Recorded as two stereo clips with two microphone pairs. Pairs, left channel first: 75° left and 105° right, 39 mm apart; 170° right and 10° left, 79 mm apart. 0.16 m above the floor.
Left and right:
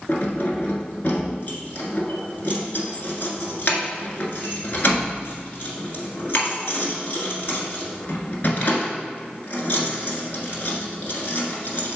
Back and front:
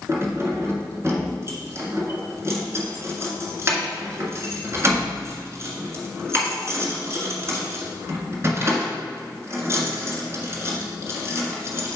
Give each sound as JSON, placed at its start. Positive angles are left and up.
{"t": 0.1, "sound": "keys jangling", "azimuth_deg": 50, "distance_m": 1.5}